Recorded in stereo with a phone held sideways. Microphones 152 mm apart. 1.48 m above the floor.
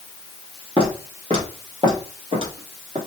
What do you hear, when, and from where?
0.8 s footsteps: 30° right (ahead or behind), 1.8 m; by 3.0 s 40° right (ahead or behind), 2.0 m